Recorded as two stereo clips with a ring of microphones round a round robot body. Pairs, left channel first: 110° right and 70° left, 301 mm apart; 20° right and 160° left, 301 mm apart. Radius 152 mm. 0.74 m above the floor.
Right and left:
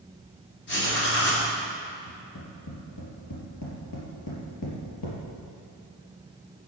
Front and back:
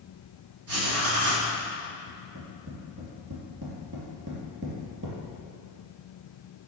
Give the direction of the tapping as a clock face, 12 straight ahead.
5 o'clock.